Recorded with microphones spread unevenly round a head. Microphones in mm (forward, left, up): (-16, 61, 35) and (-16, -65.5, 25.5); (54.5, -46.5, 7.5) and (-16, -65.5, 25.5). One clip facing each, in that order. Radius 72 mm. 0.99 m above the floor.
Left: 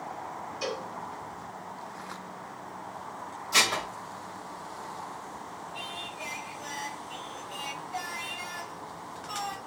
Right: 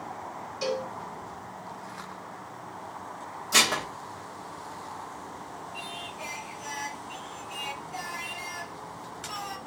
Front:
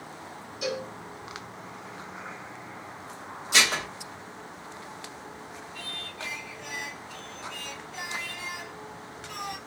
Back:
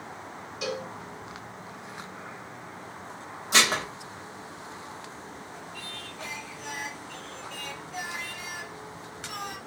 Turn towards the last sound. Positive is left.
turn(degrees=-165)